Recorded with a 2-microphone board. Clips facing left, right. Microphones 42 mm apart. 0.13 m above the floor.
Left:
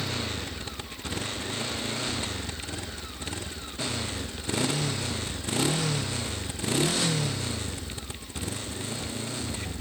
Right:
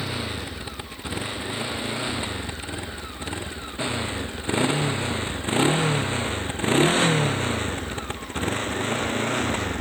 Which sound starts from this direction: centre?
A motorcycle, at 0.0 s.